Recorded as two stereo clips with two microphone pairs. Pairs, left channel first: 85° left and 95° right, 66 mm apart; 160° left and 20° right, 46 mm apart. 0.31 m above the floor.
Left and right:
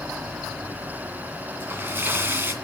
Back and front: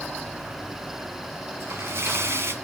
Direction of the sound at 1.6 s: 35° right.